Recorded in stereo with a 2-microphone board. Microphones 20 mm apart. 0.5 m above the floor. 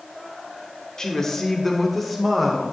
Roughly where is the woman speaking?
Left.